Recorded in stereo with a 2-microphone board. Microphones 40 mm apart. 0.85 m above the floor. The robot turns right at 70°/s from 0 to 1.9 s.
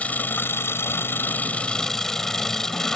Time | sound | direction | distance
0.0 | an engine running | 35° left | ?